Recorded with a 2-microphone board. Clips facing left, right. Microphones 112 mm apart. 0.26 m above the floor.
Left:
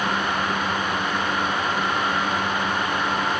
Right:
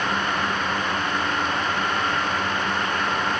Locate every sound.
Only background noise.